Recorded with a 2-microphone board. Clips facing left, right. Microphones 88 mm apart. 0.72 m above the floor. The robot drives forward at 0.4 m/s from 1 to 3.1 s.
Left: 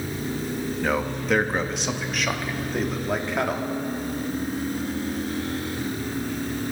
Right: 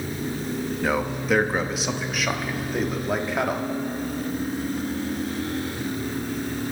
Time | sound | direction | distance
0.8 | a man speaking | 5° right (ahead or behind) | 0.7 m